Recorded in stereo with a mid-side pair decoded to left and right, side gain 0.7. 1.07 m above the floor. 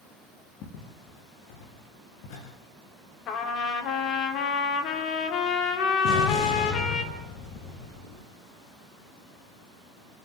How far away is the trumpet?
About 3 m.